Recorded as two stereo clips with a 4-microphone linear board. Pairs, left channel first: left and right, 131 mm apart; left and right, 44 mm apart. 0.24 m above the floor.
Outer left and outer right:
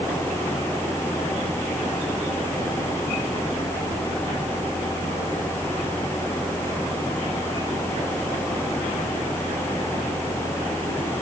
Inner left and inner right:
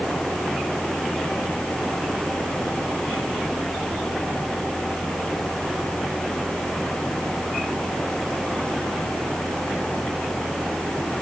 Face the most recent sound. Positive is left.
No sound to turn to.